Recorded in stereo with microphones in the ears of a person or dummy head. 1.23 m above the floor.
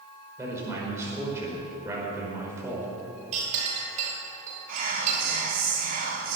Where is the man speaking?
15° right (ahead or behind), 5 m.